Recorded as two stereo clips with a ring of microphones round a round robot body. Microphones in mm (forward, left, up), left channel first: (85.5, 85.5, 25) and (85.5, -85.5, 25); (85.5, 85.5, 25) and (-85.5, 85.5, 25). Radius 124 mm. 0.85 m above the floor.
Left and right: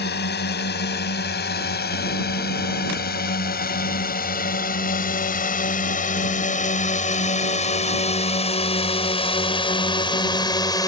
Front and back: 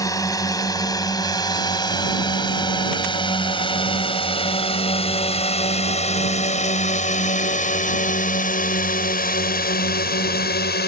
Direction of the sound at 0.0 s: 70° left.